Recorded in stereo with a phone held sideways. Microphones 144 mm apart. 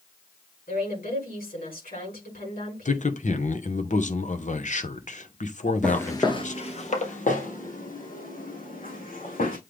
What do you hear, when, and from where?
0.7 s a woman speaking: 85° left, 6 m
2.9 s a man speaking: 55° left (ahead or behind), 1.0 m
5.8 s footsteps: 5° left (ahead or behind), 1.3 m; by 9.6 s 80° left, 5.5 m